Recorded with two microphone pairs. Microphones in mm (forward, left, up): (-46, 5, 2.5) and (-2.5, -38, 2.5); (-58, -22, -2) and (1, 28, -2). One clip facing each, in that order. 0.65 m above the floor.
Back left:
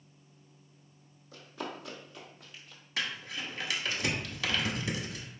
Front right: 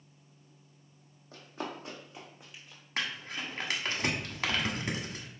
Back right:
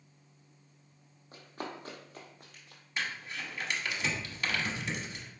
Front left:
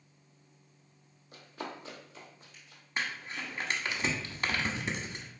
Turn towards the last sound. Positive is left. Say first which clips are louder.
# even, front left 1 dB
turn(degrees=-10)